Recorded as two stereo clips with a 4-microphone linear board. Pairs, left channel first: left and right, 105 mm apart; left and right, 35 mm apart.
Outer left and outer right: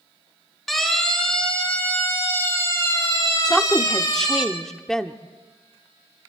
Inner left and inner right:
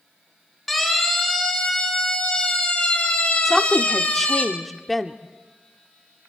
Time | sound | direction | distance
0.7 | a siren | centre (ahead or behind) | 4.5 m
3.5 | a woman speaking | 5° left (ahead or behind) | 1.0 m